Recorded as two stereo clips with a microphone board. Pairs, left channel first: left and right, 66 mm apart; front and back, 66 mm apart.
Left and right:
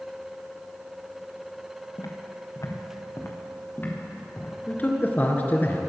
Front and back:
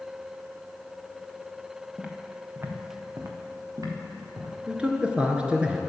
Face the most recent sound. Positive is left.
turn(degrees=120)